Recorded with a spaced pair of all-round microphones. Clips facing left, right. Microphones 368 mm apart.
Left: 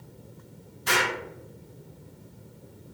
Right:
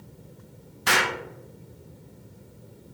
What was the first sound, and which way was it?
An explosion, 80° right.